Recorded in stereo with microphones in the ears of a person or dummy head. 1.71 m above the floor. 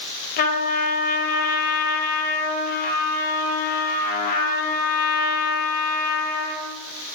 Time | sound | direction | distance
0.4 | a trumpet | 45° left (ahead or behind) | 0.9 m